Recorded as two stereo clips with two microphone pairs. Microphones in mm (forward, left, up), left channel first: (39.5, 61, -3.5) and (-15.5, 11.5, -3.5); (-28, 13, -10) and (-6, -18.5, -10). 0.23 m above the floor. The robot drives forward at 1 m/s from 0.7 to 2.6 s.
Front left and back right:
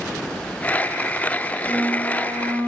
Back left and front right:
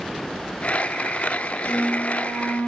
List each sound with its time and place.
1.7 s a flute: 170° left, 10 m